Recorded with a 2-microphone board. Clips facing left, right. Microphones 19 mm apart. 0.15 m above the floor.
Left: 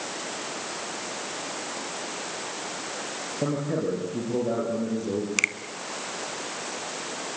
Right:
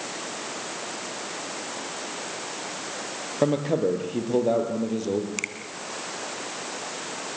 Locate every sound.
3.4 s a man speaking: 65° right (ahead or behind), 4.5 m; by 5.3 s 35° right (ahead or behind), 5 m
5.4 s a finger snap: 25° left (ahead or behind), 0.9 m